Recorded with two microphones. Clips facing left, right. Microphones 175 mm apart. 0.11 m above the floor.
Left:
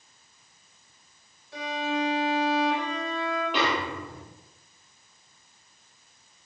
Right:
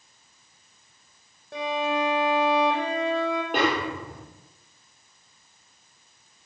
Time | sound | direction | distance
1.5 | a violin | 55° right (ahead or behind) | 4 m
3.5 | a snare drum | 50° right (ahead or behind) | 4 m